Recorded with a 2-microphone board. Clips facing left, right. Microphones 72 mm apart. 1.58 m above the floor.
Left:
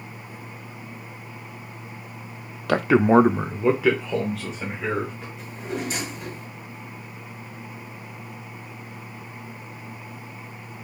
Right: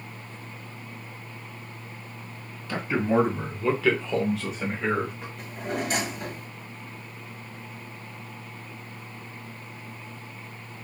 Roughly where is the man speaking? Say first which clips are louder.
Left 8 dB; left.